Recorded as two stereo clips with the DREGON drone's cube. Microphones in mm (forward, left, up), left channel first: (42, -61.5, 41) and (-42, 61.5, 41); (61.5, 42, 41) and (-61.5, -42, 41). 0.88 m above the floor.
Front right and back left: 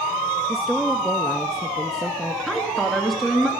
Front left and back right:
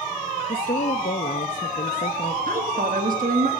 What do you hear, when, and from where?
0.5 s a woman speaking: 35° left, 0.8 m
2.5 s a woman speaking: 145° right, 1.6 m